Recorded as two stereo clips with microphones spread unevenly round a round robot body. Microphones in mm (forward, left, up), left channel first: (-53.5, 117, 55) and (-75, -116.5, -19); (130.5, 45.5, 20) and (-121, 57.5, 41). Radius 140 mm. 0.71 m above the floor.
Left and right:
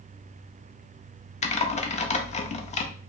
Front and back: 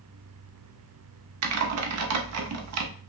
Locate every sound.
1.4 s typing on a keyboard: 150° left, 0.7 m